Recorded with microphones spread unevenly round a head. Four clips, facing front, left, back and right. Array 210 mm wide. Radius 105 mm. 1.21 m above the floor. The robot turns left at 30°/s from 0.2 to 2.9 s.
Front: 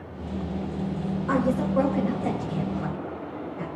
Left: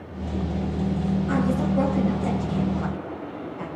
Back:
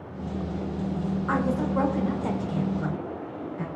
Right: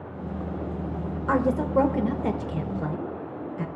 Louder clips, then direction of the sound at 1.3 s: Right 3 dB, front 3 dB; 70° right.